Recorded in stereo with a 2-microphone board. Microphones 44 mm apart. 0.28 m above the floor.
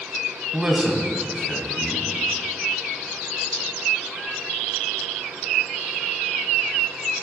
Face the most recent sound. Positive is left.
turn(degrees=-20)  # may be behind; listen again after turning